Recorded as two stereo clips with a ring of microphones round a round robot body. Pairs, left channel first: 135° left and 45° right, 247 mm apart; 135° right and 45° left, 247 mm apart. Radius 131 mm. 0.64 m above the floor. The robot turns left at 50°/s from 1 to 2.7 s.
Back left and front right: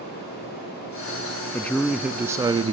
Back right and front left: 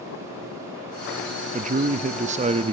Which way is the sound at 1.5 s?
60° left.